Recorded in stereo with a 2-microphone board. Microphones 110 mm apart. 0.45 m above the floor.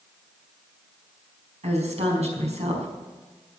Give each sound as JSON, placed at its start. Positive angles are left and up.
{"t": 1.6, "sound": "a woman speaking", "side_deg": -75, "distance_m": 5.0}